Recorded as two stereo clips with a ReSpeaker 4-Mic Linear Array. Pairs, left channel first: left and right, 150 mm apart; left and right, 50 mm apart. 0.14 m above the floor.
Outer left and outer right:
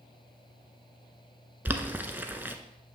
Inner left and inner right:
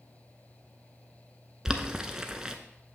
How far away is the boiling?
About 0.6 m.